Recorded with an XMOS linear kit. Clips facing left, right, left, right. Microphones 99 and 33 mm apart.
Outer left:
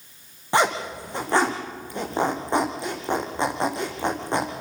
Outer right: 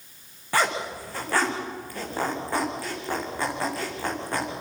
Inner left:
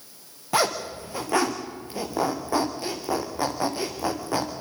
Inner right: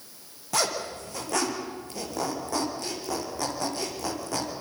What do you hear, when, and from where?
0.5 s a zipper: 20° left (ahead or behind), 3 m